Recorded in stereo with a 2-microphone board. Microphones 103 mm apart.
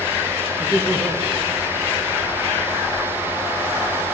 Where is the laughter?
15° right (ahead or behind), 1.6 m.